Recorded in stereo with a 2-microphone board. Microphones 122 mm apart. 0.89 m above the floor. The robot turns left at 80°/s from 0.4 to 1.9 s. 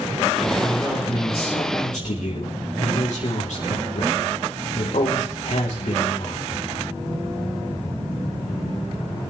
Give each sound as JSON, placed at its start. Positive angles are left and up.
{"t": 0.4, "sound": "a man speaking", "azimuth_deg": -155, "distance_m": 3.0}